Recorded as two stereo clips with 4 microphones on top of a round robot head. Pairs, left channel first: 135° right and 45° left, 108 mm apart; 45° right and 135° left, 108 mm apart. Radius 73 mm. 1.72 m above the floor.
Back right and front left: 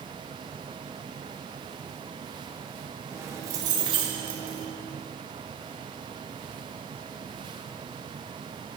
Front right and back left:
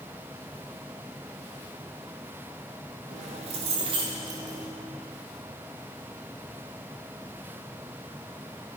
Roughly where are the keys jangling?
Left.